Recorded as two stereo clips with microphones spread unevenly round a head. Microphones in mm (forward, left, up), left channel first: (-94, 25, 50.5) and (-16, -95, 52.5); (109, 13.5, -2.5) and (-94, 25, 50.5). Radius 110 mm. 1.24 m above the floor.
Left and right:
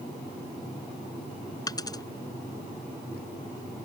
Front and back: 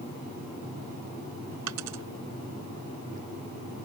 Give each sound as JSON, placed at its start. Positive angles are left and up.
{"t": 1.7, "sound": "a dropped coin", "azimuth_deg": -175}